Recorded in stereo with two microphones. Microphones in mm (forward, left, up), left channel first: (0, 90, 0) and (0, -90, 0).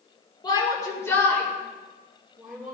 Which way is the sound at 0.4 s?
25° left (ahead or behind).